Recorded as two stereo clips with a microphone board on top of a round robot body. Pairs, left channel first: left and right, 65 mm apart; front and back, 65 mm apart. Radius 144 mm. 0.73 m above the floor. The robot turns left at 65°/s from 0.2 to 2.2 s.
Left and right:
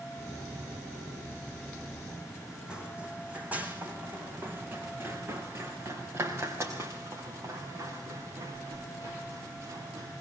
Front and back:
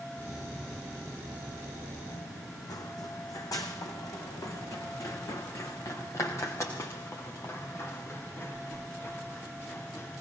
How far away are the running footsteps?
About 2.0 m.